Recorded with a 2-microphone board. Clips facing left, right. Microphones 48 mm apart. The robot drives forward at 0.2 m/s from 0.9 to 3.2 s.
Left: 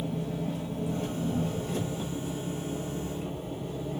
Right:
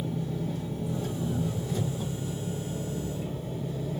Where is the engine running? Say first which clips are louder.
Even; 65° left (ahead or behind), 1.8 m; by 4.0 s 55° left (ahead or behind), 2 m.